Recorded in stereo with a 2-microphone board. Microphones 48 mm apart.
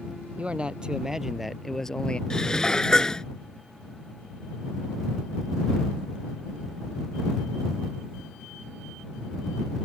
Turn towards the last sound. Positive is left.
turn(degrees=15)  # may be behind; listen again after turning